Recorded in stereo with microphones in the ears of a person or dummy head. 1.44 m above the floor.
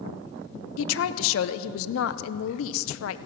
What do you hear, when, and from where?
0.8 s a woman speaking: 80° left, 0.7 m